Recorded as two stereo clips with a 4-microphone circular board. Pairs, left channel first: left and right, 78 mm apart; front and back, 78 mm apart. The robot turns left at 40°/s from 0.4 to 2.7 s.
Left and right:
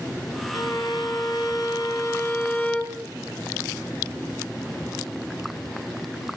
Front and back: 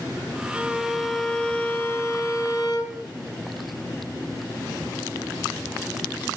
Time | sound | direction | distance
0.5 | a violin | 110° left | 1.1 m